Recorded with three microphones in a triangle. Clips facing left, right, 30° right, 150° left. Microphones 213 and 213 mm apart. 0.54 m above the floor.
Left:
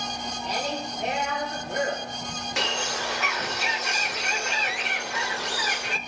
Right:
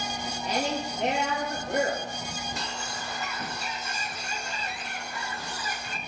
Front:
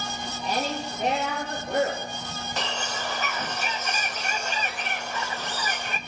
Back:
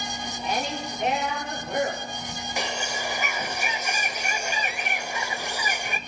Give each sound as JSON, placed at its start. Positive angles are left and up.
{"t": 0.4, "sound": "a woman speaking", "azimuth_deg": -85, "distance_m": 9.5}
{"t": 2.6, "sound": "a bird", "azimuth_deg": 75, "distance_m": 0.5}